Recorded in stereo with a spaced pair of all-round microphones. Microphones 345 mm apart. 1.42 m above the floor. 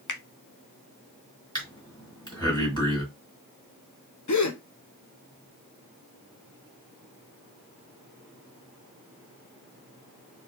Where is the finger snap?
60° left (ahead or behind), 0.6 m.